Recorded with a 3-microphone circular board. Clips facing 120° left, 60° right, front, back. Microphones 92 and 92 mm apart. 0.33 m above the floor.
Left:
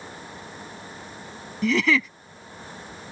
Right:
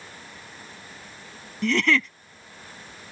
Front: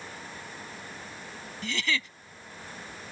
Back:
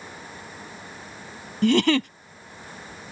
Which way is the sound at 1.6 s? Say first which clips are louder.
Left 1 dB, back 14 dB; 155° right.